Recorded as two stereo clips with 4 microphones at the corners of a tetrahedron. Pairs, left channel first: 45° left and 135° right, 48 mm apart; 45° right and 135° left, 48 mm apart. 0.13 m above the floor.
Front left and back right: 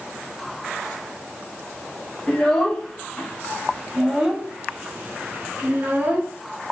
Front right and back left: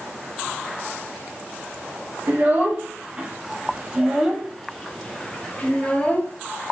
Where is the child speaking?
120° left, 1.6 m; by 6.4 s 90° right, 1.8 m.